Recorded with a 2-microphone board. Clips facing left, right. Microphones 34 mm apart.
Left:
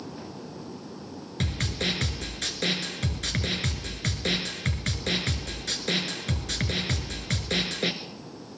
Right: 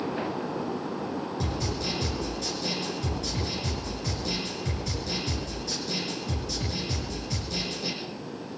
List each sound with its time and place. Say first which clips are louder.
1.4 s a snare drum: left 1 dB; 65° left (ahead or behind), 2 m